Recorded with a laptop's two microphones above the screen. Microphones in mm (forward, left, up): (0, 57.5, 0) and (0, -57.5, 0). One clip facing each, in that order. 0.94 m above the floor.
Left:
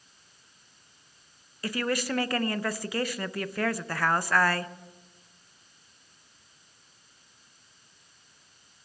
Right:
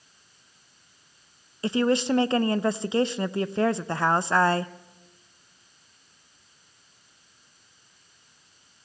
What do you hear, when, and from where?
1.6 s a woman speaking: 25° right (ahead or behind), 0.5 m